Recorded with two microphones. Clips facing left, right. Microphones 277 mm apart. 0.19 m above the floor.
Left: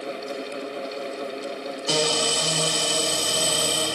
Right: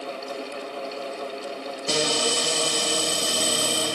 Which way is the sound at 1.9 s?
20° right (ahead or behind).